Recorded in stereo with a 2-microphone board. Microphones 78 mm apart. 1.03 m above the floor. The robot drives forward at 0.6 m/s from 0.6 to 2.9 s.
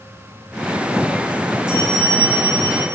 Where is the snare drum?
No snare drum in this recording.